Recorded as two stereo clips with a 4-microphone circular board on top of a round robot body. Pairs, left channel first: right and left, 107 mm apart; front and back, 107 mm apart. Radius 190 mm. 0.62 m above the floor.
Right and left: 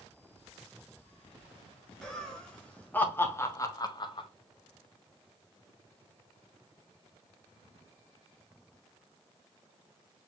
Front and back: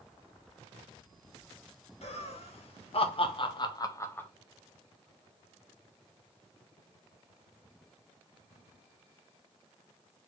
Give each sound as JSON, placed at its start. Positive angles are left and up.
{"t": 2.0, "sound": "laughter", "azimuth_deg": -5, "distance_m": 2.5}